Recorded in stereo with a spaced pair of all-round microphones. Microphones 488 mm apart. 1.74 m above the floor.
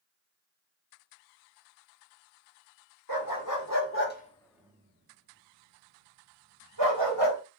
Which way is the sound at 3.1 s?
45° left (ahead or behind).